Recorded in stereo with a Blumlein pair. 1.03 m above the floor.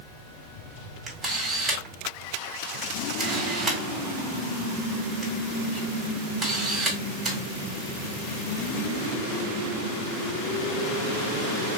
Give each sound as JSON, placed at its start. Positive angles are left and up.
{"t": 1.1, "sound": "a camera shutter", "azimuth_deg": -15, "distance_m": 2.0}